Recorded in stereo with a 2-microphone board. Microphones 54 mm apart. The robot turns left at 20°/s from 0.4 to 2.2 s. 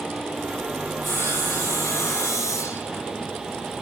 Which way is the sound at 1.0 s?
45° left (ahead or behind).